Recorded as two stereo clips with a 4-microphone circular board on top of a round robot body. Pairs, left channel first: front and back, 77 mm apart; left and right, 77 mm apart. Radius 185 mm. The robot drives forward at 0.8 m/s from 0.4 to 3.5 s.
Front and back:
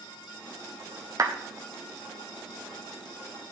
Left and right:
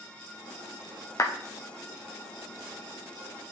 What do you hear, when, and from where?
1.2 s a clap: 140° left, 1.4 m; by 1.3 s 145° left, 1.5 m